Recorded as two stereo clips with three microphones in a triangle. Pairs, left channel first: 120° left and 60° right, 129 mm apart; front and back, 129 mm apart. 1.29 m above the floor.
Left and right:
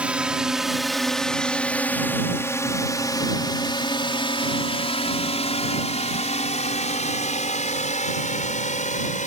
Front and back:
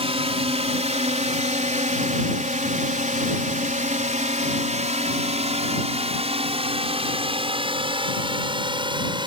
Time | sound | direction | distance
0.0 | a drone | 140° right | ?